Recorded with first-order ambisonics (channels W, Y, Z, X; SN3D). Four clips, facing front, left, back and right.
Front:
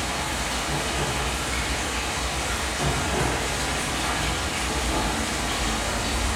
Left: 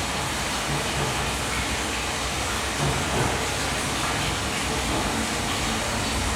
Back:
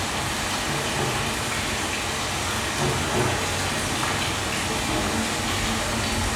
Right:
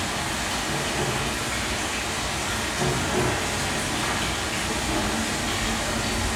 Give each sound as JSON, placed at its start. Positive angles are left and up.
{"t": 0.0, "sound": "running water", "azimuth_deg": -175, "distance_m": 1.8}